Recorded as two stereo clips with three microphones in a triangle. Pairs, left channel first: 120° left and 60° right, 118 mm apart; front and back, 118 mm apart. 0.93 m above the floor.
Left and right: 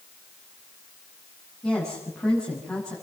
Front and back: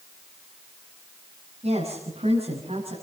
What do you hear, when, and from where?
1.6 s a woman speaking: 155° right, 7 m